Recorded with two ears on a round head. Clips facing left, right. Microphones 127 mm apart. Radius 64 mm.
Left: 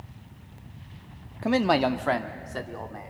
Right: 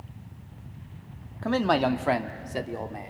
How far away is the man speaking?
About 0.6 m.